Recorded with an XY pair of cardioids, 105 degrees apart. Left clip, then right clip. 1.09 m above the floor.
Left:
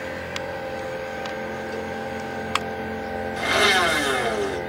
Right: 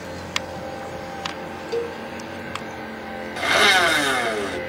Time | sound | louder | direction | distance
1.7 | a cowbell | right 4 dB | 55° right | 0.6 m
3.4 | a blender | right 3 dB | 40° right | 1.3 m